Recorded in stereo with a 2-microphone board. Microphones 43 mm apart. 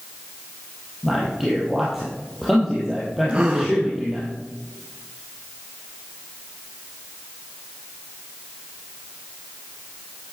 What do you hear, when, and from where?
1.0 s a man speaking: 5° right (ahead or behind), 3 m
3.3 s a gasp: 25° right (ahead or behind), 2 m